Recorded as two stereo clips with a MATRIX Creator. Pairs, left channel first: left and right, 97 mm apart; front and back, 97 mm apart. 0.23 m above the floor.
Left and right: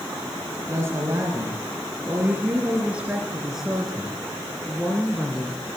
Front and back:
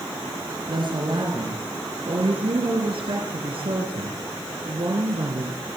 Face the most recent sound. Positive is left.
turn(degrees=160)